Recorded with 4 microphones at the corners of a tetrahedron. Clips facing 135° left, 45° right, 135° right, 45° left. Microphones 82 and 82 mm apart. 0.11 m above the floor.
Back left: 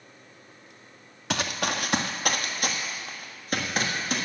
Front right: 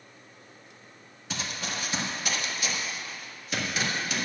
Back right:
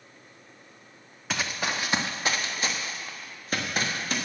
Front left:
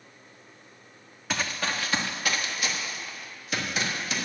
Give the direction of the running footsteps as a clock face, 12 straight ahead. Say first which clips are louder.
Back left 7 dB, even; 7 o'clock.